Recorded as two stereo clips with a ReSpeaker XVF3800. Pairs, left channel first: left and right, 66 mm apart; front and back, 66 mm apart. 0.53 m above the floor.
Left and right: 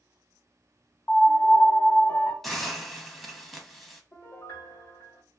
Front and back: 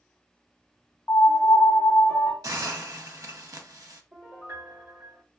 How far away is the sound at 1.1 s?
About 0.7 m.